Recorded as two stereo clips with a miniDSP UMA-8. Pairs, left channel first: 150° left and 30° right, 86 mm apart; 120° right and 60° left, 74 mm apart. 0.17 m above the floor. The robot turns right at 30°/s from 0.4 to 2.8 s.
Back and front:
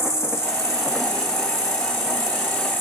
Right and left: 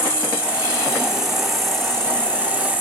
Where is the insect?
120° left, 1.7 m; by 2.8 s 165° right, 1.7 m.